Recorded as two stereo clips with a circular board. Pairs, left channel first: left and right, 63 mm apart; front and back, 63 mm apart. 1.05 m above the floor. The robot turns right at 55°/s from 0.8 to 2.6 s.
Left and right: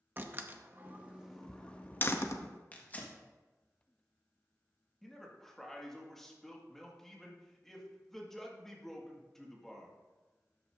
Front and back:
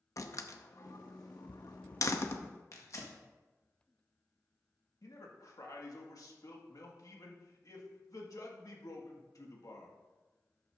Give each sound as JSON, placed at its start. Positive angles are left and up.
{"t": 0.2, "sound": "a door slam", "azimuth_deg": -35, "distance_m": 0.7}
{"t": 2.7, "sound": "tearing paper", "azimuth_deg": 25, "distance_m": 1.5}
{"t": 5.0, "sound": "a man speaking", "azimuth_deg": 5, "distance_m": 1.8}